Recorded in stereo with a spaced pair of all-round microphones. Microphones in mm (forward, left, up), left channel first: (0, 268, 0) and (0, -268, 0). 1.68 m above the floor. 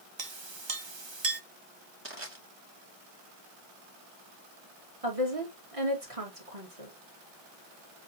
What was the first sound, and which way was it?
A clink, 50° right (ahead or behind).